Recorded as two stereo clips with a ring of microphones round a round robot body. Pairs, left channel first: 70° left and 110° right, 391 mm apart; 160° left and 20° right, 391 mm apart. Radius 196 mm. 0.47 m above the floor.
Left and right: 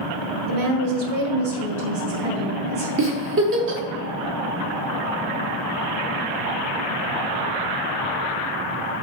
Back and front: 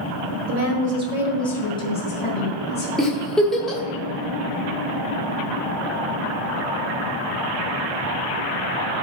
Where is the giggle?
115° right, 1.1 m.